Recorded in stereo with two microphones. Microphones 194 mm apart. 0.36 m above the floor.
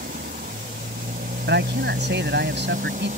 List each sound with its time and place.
0.0 s a motorcycle: 45° right (ahead or behind); by 3.2 s 35° right (ahead or behind)
1.5 s a man speaking: 60° right (ahead or behind)